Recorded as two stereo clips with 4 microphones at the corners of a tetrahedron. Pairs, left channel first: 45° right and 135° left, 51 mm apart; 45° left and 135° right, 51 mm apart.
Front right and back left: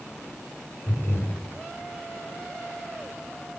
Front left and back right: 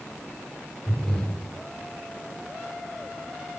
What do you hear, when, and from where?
0.9 s breathing: 20° right, 2.5 m